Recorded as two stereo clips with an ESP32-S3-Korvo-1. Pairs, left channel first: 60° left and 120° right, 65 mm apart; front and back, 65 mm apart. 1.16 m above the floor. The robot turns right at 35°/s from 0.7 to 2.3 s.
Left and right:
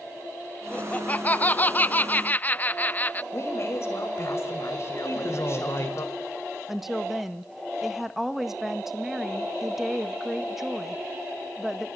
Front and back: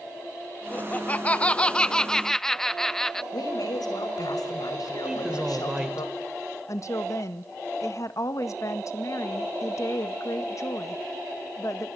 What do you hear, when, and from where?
0.7 s laughter: 20° left, 0.6 m; by 3.2 s 75° left, 0.6 m
3.3 s a woman speaking: 15° left, 5.5 m
5.0 s a woman speaking: 100° left, 4.5 m
6.7 s a woman speaking: 35° right, 1.7 m